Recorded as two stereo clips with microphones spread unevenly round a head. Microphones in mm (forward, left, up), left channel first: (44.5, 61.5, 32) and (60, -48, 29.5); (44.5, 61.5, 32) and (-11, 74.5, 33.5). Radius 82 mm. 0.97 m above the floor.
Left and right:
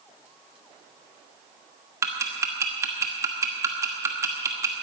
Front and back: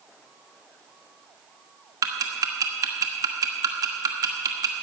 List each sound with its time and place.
2.0 s ticking: 155° right, 1.1 m